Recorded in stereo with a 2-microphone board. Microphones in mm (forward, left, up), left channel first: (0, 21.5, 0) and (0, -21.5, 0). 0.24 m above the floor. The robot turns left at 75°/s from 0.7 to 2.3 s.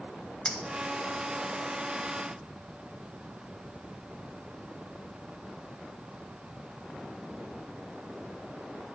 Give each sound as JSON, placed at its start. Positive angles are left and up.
{"t": 0.5, "sound": "a clink", "side_deg": 20, "distance_m": 0.9}